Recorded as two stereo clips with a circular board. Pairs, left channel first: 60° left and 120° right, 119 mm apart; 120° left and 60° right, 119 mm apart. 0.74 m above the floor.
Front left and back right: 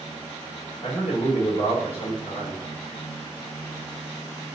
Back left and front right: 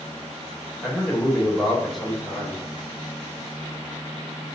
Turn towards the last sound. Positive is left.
turn(degrees=30)